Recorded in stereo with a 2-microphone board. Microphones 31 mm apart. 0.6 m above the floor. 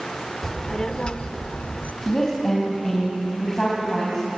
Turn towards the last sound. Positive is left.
turn(degrees=25)  # may be behind; listen again after turning